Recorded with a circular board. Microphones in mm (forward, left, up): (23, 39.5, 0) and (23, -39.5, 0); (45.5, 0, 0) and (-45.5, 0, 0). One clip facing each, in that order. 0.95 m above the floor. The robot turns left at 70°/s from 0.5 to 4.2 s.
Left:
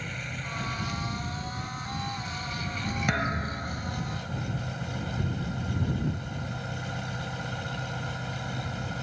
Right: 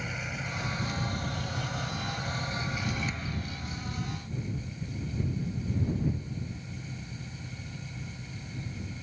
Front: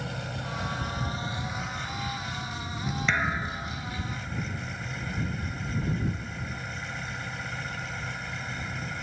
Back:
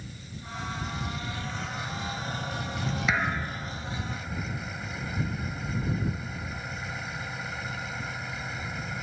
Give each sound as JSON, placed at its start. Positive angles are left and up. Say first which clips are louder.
{"t": 0.0, "sound": "an engine running", "louder": "right 1 dB, front 9 dB", "azimuth_deg": -5}
{"t": 3.1, "sound": "a thud", "louder": "left 8 dB, front 1 dB", "azimuth_deg": 100}